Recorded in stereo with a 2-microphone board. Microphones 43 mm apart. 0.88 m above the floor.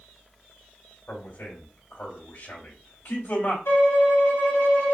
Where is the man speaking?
65° left (ahead or behind), 2.5 m.